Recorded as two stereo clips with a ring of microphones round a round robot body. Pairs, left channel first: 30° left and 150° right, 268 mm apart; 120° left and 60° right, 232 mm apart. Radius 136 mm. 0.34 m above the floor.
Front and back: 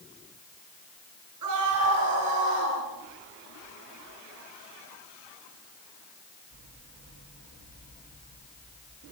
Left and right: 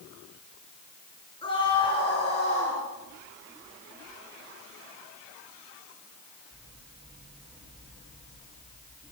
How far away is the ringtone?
I don't hear a ringtone.